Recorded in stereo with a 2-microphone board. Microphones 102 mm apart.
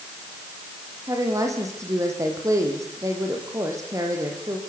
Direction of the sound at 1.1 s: 30° right (ahead or behind).